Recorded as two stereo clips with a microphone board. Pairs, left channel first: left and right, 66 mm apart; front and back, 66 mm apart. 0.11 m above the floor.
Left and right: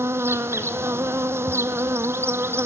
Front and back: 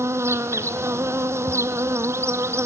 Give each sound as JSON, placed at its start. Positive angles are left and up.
{"t": 0.0, "sound": "an insect", "azimuth_deg": -135, "distance_m": 0.7}